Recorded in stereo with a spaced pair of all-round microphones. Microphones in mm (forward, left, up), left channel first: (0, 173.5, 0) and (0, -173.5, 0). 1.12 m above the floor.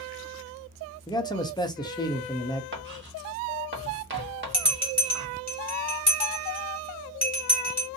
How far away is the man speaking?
About 0.7 m.